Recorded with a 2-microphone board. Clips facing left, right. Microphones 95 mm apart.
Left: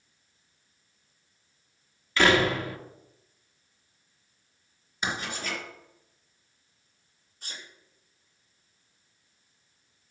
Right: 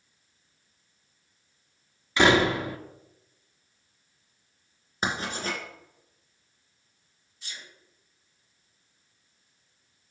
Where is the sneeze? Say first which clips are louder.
Left 1 dB; 50° left (ahead or behind), 3 m.